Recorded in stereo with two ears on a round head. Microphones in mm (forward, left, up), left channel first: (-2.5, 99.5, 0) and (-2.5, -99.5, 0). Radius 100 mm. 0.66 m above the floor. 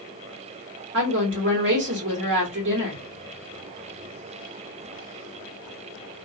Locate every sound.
0.9 s a woman speaking: 55° right (ahead or behind), 1.8 m